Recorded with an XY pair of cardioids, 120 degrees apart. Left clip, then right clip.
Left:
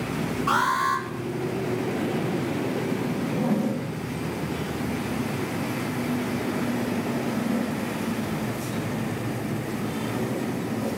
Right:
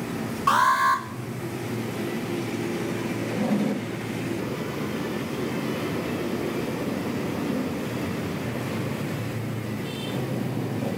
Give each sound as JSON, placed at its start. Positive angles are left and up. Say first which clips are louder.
{"t": 0.5, "sound": "an alarm", "louder": "right 3 dB", "azimuth_deg": -45, "distance_m": 9.0}
{"t": 3.2, "sound": "a zipper", "louder": "right 1 dB", "azimuth_deg": -15, "distance_m": 7.5}